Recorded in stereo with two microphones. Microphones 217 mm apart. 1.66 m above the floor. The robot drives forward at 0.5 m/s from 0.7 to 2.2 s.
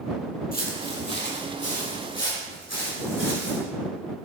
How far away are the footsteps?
About 2 m.